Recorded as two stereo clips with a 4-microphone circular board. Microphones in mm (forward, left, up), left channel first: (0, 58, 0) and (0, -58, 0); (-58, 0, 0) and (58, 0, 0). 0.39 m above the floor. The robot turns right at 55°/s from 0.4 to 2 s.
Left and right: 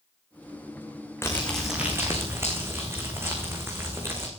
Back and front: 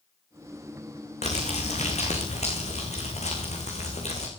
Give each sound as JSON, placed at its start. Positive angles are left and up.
{"t": 1.2, "sound": "crumpling", "azimuth_deg": 160, "distance_m": 5.5}